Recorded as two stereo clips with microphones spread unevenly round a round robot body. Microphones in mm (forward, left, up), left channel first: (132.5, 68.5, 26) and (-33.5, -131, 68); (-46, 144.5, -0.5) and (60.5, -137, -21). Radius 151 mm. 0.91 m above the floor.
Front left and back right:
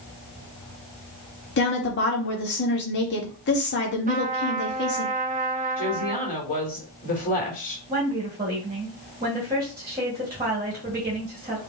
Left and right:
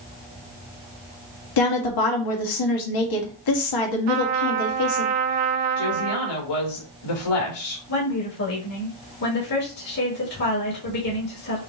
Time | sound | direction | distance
1.6 | a woman speaking | 95° left | 1.6 m
4.1 | a trumpet | 65° right | 0.7 m
5.8 | a woman speaking | 110° left | 2.5 m
7.9 | a woman speaking | 150° left | 1.8 m